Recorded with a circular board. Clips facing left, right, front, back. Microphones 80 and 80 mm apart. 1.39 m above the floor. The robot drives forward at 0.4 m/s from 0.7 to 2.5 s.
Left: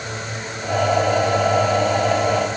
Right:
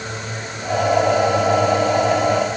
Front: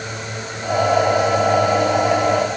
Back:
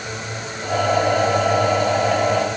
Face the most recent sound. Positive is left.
No sound to turn to.